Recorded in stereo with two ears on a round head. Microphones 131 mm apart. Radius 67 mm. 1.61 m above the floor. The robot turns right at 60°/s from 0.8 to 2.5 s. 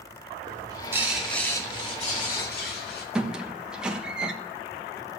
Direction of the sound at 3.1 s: 5° right (ahead or behind).